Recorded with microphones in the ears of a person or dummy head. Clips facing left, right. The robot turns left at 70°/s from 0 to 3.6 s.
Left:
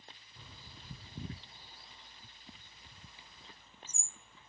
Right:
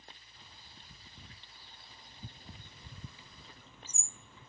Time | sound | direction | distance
0.4 | a bird | 75° left (ahead or behind) | ?